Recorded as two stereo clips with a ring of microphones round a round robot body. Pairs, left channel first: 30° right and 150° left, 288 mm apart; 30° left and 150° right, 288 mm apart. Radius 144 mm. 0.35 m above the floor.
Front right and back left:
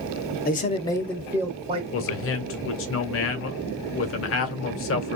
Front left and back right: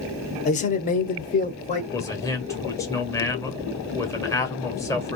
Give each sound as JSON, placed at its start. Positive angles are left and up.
{"t": 0.5, "sound": "a man speaking", "azimuth_deg": -10, "distance_m": 0.9}
{"t": 1.9, "sound": "a man speaking", "azimuth_deg": -45, "distance_m": 1.1}